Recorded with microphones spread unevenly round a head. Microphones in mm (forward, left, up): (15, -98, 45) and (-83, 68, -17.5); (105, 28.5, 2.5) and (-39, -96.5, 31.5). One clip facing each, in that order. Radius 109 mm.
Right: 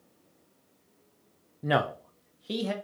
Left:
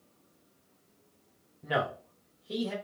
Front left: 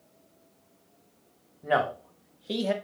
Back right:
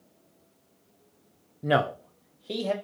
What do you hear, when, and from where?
1.6 s a man speaking: 95° right, 0.6 m; by 2.7 s 35° right, 0.8 m